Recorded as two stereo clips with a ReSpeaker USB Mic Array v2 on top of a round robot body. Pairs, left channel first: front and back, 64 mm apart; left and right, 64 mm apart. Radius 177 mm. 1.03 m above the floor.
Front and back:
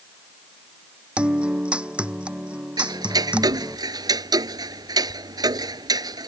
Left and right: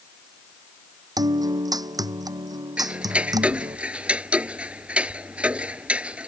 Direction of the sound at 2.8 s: 160° right.